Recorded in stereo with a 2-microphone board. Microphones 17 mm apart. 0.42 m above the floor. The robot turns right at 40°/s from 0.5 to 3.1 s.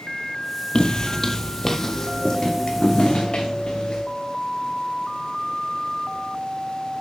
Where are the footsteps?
45° left (ahead or behind), 0.6 m; by 4.0 s 50° left (ahead or behind), 2.5 m.